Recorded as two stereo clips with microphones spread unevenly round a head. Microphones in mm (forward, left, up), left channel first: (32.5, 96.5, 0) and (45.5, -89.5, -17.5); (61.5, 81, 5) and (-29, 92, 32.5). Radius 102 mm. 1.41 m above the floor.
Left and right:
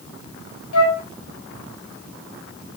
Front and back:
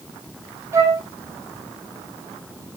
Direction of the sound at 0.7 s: 110° left.